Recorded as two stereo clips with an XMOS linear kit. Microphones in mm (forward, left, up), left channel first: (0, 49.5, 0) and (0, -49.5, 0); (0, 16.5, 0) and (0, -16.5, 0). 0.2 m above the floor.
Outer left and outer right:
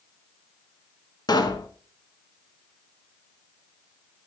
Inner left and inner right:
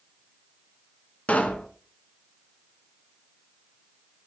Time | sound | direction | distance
1.3 | a pop | 45° left (ahead or behind) | 1.1 m